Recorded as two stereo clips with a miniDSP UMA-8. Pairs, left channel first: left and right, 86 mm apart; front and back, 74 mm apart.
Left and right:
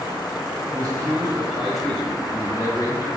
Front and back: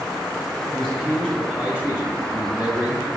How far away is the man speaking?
About 1.9 m.